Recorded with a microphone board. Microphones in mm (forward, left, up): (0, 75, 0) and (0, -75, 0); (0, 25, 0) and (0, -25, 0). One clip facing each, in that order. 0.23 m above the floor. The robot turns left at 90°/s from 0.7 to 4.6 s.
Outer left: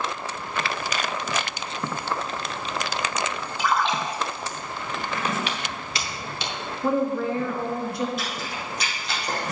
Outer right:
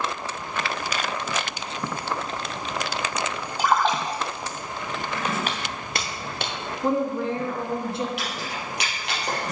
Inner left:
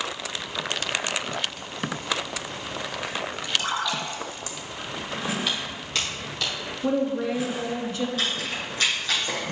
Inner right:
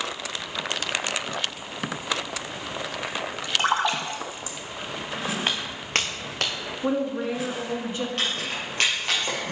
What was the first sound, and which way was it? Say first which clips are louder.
A splash: outer right 2 dB, inner right 4 dB; 45° right (ahead or behind).